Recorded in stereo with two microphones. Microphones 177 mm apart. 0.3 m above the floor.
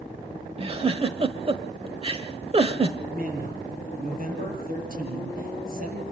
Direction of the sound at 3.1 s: 55° right (ahead or behind).